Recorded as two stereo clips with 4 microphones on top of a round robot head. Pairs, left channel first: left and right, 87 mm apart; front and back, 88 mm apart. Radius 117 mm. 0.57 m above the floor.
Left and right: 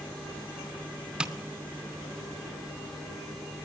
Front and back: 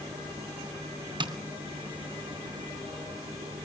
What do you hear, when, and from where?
1.2 s tapping: 170° right, 2.5 m